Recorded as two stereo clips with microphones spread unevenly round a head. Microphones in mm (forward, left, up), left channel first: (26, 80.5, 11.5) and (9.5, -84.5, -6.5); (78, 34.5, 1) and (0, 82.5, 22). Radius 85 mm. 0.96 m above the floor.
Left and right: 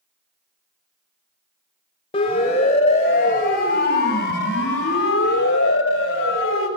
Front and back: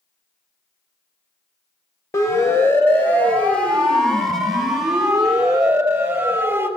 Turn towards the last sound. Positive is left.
turn(degrees=80)